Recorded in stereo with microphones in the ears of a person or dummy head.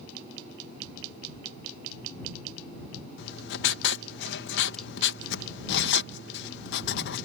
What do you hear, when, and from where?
3.2 s writing: 70° left (ahead or behind)